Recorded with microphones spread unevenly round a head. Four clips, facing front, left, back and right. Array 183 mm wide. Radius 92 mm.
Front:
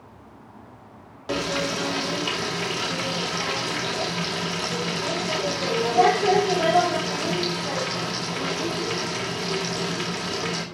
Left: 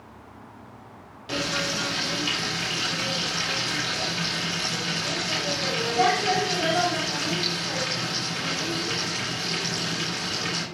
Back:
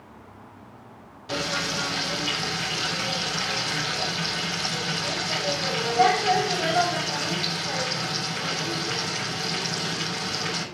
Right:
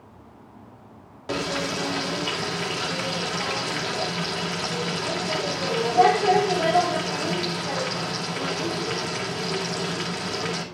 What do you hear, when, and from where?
1.3 s frying: 35° right, 2.5 m